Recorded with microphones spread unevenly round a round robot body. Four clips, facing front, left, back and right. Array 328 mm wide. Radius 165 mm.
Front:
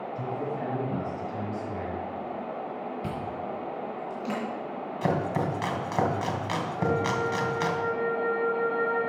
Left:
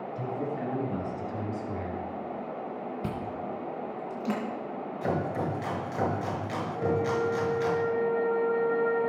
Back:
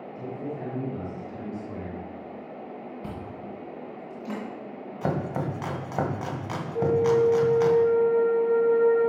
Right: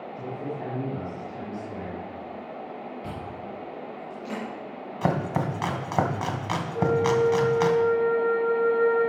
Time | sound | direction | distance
0.1 | a man speaking | 80° left | 6 m
3.0 | chewing | 100° left | 3 m
5.0 | chopping | 75° right | 2.5 m
6.8 | a flute | 160° right | 3.5 m